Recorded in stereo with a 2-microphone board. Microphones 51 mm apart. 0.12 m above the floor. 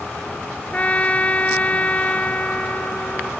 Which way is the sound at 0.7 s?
30° left (ahead or behind).